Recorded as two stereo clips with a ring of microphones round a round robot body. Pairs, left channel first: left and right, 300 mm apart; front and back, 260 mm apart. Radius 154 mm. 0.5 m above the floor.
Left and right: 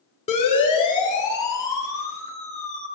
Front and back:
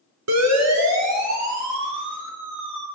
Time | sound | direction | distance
0.3 | a siren | 160° left | 8.5 m